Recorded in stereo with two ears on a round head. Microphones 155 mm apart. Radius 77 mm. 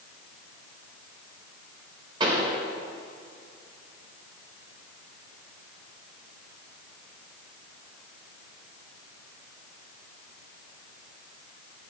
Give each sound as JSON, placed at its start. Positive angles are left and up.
{"t": 2.2, "sound": "a pop", "side_deg": -25, "distance_m": 3.5}